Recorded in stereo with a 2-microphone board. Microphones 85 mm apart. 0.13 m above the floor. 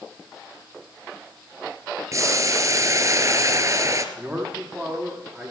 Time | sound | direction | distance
2.1 | boiling | 40° right (ahead or behind) | 1.1 m
4.2 | a man speaking | 15° right (ahead or behind) | 8 m